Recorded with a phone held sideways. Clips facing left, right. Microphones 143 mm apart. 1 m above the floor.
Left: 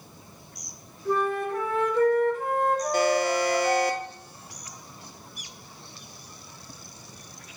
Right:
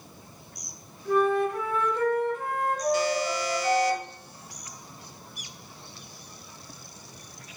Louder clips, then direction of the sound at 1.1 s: Right 3 dB; 30° left (ahead or behind).